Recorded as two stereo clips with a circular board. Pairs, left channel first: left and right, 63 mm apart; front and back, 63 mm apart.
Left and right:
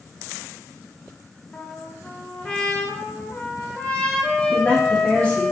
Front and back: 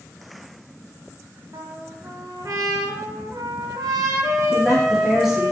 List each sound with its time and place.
1.5 s a trumpet: 165° left, 0.6 m
4.5 s a woman speaking: 105° left, 0.9 m